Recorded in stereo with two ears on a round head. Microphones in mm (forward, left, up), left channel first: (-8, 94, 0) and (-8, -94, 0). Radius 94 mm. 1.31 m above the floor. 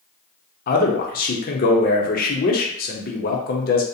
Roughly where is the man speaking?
Left.